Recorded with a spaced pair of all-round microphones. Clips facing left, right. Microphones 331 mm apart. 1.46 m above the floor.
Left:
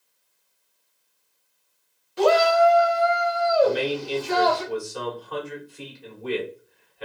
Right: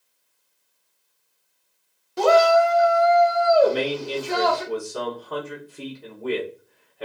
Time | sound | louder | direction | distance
2.2 | a shout | right 1 dB | 55° right (ahead or behind) | 0.5 m
3.6 | a man speaking | right 1 dB | 60° right (ahead or behind) | 1.5 m